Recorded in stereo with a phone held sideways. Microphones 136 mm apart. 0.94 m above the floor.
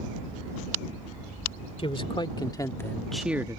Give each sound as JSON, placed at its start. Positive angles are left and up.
{"t": 1.8, "sound": "a man speaking", "side_deg": 45}